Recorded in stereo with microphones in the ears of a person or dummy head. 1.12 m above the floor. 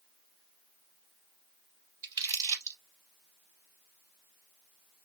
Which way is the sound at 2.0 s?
25° right (ahead or behind).